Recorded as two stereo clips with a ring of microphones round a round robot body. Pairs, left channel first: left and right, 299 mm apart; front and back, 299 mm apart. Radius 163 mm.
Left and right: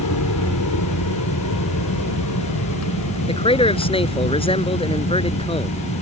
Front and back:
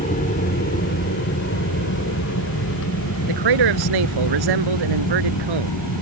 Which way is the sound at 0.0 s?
65° left.